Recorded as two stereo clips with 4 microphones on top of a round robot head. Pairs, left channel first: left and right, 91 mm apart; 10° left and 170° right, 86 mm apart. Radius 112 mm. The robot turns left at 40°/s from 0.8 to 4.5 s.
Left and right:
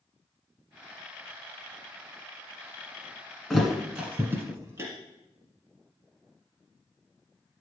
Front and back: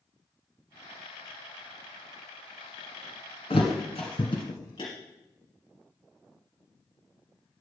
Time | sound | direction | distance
3.5 | a thud | straight ahead | 1.2 m